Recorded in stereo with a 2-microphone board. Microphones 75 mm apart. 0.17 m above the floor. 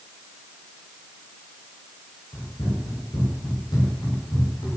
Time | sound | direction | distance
2.3 | running footsteps | 65° left (ahead or behind) | 7 m